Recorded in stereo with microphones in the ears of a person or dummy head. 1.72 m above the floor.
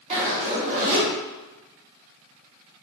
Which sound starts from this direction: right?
A zipper, at 0.1 s.